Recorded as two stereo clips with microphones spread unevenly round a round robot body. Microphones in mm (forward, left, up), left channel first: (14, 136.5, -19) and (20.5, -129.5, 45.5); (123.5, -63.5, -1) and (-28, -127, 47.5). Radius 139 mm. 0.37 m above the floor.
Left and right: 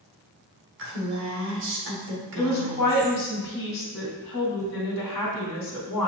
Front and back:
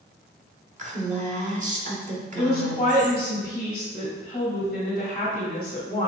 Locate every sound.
0.8 s a woman speaking: 125° right, 1.3 m
2.4 s a woman speaking: 95° left, 2 m